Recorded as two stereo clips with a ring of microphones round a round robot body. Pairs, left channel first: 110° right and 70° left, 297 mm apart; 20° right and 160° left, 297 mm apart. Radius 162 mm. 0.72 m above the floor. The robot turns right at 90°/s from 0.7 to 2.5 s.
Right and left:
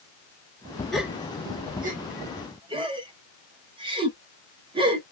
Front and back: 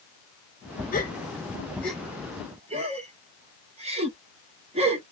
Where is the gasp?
25° right, 0.9 m; by 5.0 s 120° left, 0.9 m.